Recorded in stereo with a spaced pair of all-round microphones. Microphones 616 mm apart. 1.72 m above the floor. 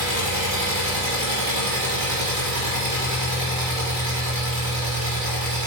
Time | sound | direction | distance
0.0 | an engine running | 25° right (ahead or behind) | 1.1 m